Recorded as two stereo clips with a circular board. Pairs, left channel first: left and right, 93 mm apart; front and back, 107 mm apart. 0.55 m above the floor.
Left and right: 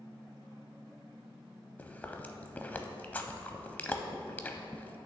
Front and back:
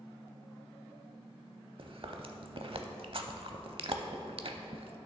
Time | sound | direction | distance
1.8 | chewing | 160° left | 0.6 m